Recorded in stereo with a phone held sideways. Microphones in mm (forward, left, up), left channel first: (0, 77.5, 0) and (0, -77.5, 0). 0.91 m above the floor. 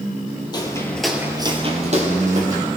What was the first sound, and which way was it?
Footsteps, 30° left (ahead or behind).